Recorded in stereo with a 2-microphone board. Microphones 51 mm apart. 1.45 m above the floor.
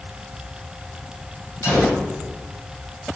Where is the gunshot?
70° left (ahead or behind), 7 m.